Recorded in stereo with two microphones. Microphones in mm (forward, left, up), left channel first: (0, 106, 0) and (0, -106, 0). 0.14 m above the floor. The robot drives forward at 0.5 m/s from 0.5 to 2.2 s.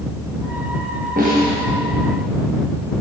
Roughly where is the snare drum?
Right.